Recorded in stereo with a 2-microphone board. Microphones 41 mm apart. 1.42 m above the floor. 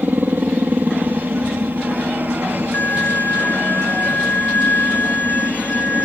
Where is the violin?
50° left (ahead or behind).